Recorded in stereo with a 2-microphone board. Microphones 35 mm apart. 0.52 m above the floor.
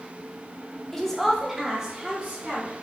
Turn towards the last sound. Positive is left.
turn(degrees=-30)  # may be behind; listen again after turning